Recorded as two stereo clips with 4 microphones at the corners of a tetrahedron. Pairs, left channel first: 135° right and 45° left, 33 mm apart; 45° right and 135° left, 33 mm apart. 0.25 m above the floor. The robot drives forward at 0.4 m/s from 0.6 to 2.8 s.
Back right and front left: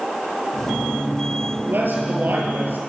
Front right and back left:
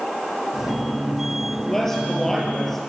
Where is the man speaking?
35° left, 7 m.